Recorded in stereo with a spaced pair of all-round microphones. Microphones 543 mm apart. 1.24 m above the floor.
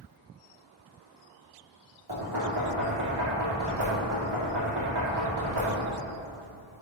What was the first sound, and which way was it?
Knocking, 45° right (ahead or behind).